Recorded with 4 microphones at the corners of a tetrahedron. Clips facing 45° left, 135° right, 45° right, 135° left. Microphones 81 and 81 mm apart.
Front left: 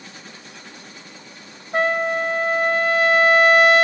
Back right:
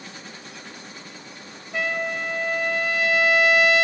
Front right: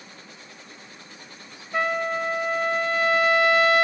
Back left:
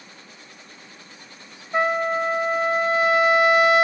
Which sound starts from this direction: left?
A trumpet, at 1.7 s.